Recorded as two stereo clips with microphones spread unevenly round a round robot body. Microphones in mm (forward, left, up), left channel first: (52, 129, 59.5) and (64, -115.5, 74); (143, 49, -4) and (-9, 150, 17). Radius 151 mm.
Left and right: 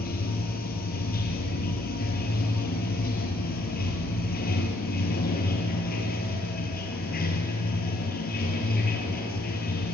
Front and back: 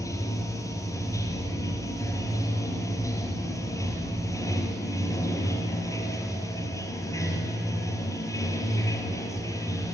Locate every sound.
0.0 s running water: 40° left, 2.5 m